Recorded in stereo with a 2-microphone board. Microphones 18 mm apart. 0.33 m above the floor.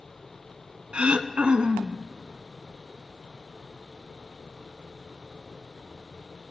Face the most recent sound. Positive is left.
turn(degrees=-80)